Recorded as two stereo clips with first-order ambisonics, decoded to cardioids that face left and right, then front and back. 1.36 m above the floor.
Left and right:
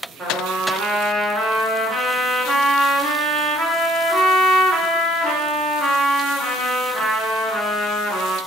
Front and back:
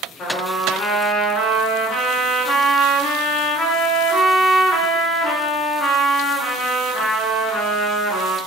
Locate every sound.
0.2 s a trumpet: 30° right, 1.1 m